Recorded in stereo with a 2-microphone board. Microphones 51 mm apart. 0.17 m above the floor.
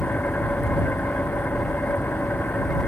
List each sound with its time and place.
0.0 s an engine running: 35° left (ahead or behind)